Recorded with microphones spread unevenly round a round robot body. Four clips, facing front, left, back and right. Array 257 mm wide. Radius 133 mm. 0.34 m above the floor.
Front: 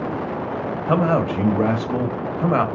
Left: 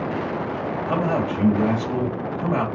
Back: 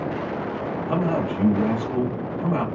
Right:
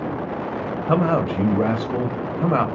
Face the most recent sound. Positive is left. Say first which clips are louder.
# right 4 dB, front 5 dB
turn(degrees=-30)